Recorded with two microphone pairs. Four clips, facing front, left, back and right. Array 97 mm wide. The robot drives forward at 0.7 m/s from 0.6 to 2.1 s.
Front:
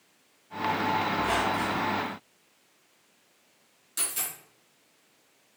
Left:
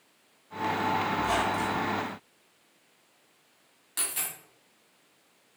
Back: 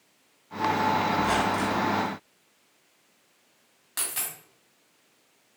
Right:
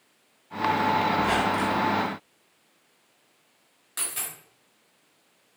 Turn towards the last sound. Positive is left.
turn(degrees=180)